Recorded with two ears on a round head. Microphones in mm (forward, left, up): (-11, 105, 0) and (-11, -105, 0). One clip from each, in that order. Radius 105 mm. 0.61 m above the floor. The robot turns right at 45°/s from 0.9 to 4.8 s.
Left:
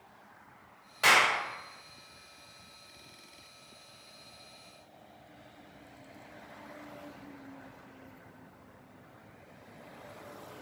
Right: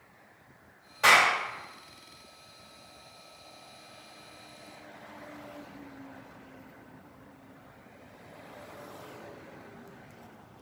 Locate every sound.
1.0 s a clap: 25° left (ahead or behind), 1.9 m; by 1.3 s 10° left (ahead or behind), 1.9 m